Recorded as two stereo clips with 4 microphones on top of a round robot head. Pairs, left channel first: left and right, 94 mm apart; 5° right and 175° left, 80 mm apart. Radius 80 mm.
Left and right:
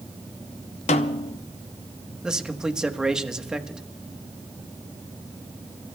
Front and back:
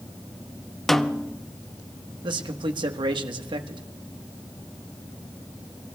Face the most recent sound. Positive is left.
turn(degrees=-175)